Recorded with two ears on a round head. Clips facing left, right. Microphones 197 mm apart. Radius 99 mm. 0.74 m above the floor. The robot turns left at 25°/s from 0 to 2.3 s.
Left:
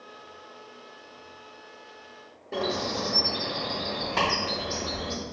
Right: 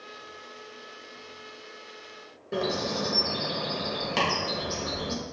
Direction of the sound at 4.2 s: 45° right (ahead or behind).